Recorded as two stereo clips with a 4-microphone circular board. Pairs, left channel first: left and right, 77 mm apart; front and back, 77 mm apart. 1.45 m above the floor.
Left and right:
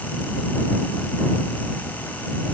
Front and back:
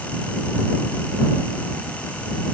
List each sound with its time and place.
Only background noise.